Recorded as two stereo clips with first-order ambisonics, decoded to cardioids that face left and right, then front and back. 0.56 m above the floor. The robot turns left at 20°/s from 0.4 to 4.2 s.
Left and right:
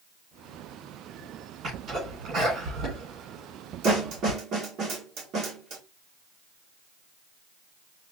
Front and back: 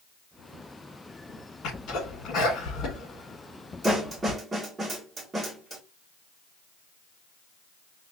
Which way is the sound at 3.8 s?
105° right.